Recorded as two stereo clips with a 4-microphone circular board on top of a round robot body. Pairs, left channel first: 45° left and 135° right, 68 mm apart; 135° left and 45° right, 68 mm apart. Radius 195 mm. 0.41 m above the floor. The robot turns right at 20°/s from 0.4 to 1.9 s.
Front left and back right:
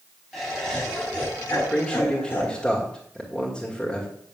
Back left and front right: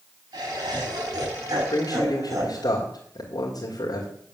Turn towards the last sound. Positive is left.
turn(degrees=125)